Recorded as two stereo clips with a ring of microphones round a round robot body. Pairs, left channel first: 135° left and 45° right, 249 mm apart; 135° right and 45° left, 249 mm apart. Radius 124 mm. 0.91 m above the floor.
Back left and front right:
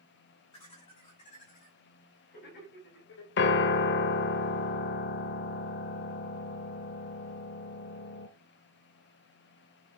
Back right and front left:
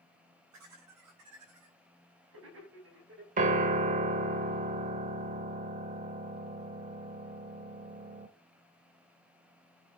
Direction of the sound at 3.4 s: 100° left.